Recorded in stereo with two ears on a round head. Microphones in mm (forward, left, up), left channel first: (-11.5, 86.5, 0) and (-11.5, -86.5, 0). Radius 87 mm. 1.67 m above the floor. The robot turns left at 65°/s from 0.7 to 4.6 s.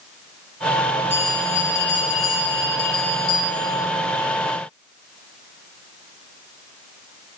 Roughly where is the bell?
Behind.